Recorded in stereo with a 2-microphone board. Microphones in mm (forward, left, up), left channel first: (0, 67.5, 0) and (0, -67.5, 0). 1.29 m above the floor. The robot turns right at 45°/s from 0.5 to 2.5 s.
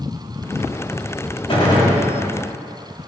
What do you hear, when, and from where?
1.5 s a gunshot: 45° left (ahead or behind), 3.5 m; by 2.0 s 20° left (ahead or behind), 3.5 m